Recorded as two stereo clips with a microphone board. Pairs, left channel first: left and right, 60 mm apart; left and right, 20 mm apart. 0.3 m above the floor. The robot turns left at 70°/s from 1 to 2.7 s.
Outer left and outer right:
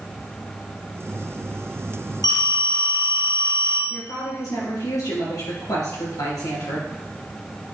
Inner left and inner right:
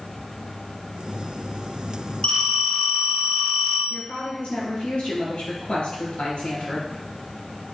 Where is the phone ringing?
90° left, 4.5 m; by 3.8 s 60° left, 4.5 m.